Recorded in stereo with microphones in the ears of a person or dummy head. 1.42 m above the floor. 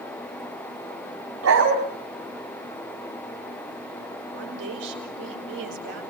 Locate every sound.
1.4 s a dog barking: 80° right, 4.5 m
4.3 s a woman speaking: 60° right (ahead or behind), 5.5 m